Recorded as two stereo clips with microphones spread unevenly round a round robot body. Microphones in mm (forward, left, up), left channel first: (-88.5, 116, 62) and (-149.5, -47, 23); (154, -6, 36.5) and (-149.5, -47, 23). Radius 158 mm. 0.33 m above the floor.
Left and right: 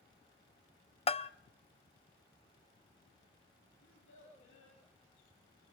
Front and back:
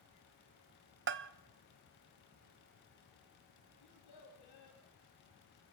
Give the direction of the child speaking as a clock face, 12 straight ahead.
11 o'clock.